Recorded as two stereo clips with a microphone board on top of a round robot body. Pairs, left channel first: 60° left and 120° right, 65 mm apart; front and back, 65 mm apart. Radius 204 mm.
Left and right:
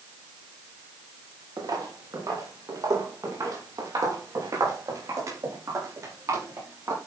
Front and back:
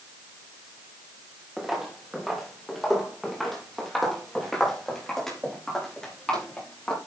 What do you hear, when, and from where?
1.6 s footsteps: 95° right, 4 m; by 7.0 s 80° right, 8 m